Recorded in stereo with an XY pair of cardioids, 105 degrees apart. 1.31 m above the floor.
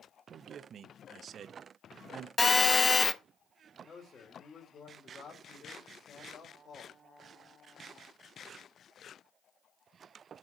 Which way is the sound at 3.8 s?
40° left.